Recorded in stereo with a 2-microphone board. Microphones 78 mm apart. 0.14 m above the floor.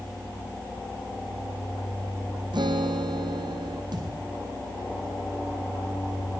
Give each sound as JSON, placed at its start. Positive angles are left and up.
{"t": 2.5, "sound": "a guitar", "side_deg": -80, "distance_m": 2.5}
{"t": 3.9, "sound": "a thud", "side_deg": -70, "distance_m": 8.0}